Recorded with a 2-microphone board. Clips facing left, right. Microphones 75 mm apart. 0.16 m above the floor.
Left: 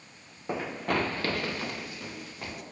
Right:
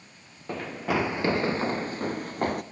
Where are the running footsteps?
10° left (ahead or behind), 0.9 m; by 2.6 s 50° right (ahead or behind), 1.6 m.